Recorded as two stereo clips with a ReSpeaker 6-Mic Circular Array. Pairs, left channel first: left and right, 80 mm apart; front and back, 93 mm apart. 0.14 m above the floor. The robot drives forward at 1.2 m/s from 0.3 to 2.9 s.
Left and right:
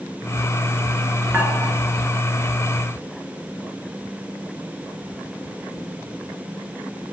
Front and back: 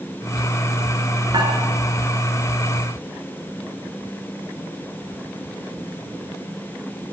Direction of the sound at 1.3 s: 155° right.